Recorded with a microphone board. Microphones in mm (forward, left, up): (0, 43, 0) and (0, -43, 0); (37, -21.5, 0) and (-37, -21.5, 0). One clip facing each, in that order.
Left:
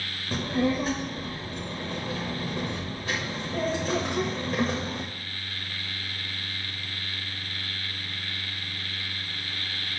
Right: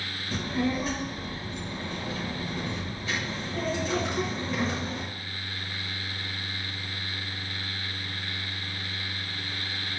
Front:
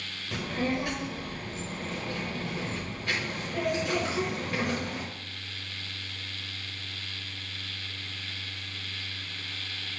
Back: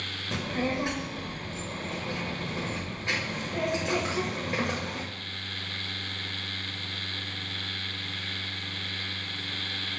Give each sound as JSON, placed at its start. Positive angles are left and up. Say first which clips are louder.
{"t": 0.3, "sound": "a child speaking", "louder": "left 3 dB, even", "azimuth_deg": 120, "distance_m": 1.1}